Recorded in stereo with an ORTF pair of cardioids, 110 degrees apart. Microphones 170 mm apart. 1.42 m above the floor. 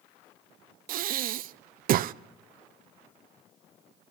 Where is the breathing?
60° right, 0.5 m.